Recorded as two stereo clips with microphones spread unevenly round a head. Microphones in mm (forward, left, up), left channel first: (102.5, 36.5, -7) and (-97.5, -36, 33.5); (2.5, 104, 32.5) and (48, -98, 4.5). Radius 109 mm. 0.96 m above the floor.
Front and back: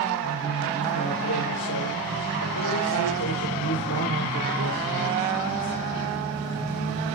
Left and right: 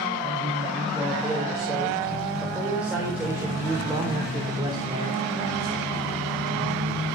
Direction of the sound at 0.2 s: 20° left.